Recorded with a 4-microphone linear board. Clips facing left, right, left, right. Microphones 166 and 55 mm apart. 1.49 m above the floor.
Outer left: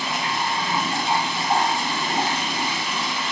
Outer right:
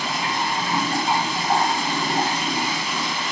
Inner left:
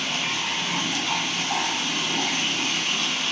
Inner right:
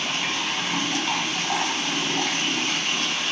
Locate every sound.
0.0 s running water: 40° right (ahead or behind), 0.8 m